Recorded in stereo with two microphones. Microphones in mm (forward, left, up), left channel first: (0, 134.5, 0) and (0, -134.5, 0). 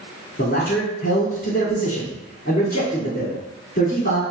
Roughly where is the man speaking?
Left.